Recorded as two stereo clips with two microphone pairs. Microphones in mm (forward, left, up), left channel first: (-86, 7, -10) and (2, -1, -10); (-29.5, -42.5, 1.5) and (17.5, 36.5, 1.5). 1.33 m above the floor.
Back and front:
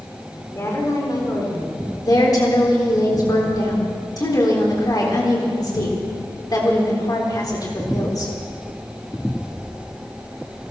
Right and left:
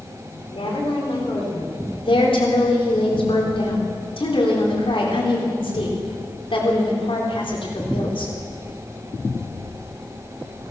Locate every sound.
0.5 s a woman speaking: 125° right, 4 m; by 1.8 s 145° right, 4 m
2.0 s a woman speaking: 140° right, 4 m